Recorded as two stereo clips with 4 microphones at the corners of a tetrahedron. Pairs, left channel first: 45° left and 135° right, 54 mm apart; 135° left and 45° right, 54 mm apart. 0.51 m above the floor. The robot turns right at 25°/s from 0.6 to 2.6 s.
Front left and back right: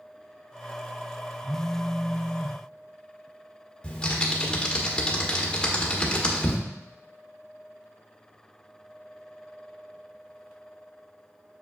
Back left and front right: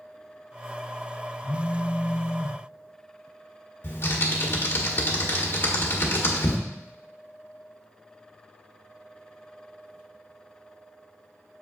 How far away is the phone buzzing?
About 0.7 m.